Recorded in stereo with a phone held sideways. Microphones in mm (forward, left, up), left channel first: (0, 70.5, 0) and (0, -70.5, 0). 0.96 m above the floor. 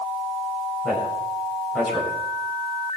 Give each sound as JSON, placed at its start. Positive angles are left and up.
{"t": 0.8, "sound": "a man speaking", "side_deg": 5, "distance_m": 6.0}